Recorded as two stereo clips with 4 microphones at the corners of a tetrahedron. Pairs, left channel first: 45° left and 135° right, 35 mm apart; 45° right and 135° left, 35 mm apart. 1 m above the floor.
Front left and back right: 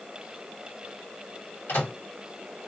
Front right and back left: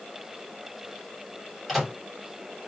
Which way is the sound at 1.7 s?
40° left.